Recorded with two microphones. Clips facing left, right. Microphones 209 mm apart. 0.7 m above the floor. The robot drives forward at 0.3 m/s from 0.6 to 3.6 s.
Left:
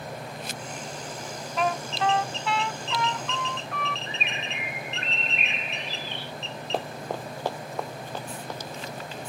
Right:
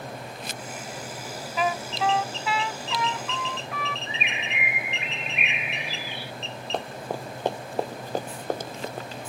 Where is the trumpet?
5° right (ahead or behind); by 4.0 s centre (ahead or behind).